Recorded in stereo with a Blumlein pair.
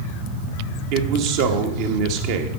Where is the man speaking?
45° right, 1.4 m.